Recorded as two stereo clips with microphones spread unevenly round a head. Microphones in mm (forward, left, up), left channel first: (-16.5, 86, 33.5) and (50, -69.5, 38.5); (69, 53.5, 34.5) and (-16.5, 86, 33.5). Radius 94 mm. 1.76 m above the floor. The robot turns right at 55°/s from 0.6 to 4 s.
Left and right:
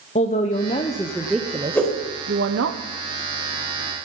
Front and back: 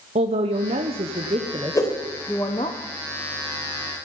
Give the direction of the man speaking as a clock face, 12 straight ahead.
6 o'clock.